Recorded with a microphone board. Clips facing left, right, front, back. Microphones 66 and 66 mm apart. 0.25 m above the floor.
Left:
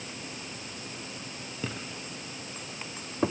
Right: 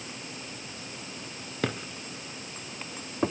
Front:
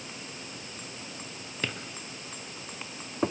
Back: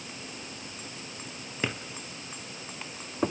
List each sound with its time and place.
1.6 s a drawer: 105° right, 3 m